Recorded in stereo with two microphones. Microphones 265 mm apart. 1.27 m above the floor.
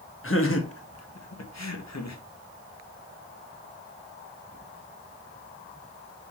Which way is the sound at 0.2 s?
55° left (ahead or behind).